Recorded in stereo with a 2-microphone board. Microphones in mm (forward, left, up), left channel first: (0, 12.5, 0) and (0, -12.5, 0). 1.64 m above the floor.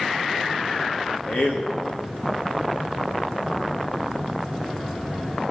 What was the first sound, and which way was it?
A man speaking, 60° left (ahead or behind).